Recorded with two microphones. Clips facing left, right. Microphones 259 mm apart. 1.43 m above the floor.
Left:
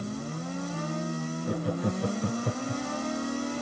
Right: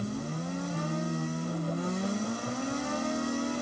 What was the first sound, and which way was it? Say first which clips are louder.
Laughter: left 3 dB; 80° left.